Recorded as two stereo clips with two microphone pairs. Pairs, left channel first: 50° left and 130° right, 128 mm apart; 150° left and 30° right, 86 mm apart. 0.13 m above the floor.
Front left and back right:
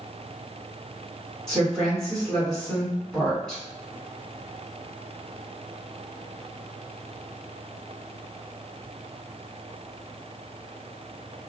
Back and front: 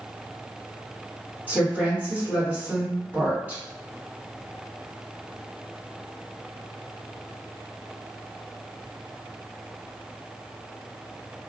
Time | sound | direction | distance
1.5 | a woman speaking | 25° right | 1.6 m